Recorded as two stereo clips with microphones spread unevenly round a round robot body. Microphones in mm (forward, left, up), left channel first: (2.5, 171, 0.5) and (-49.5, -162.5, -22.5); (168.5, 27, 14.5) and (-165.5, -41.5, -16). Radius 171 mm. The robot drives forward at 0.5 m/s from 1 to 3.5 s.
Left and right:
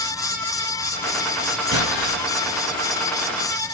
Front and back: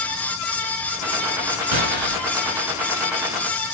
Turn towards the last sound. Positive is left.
turn(degrees=175)